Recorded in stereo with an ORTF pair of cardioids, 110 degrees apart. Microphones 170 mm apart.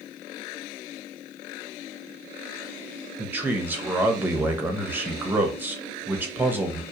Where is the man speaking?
10° right, 0.7 m.